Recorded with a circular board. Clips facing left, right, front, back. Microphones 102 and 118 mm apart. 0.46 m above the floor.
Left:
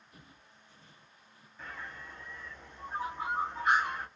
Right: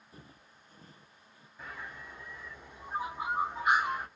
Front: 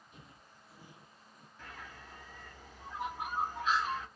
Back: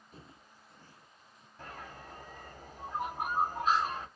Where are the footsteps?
140° right, 0.7 m; by 1.5 s 30° right, 0.8 m.